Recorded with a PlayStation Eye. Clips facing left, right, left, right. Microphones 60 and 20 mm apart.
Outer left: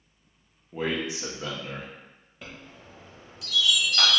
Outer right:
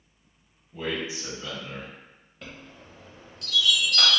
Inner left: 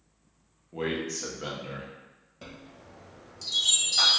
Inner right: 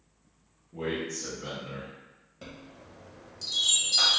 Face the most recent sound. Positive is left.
turn(degrees=5)  # may be behind; listen again after turning